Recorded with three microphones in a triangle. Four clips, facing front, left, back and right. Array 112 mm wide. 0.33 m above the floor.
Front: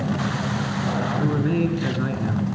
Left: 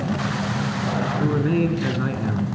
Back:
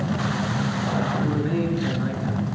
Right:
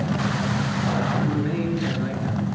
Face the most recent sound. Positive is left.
turn(degrees=60)